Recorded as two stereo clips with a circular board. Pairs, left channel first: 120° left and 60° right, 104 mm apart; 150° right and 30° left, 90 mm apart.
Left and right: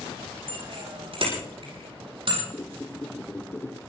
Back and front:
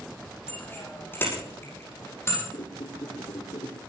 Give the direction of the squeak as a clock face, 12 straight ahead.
6 o'clock.